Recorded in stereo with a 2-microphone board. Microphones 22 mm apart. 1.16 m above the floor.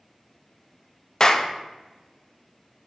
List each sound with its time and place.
1.2 s a clap: 30° left (ahead or behind), 0.6 m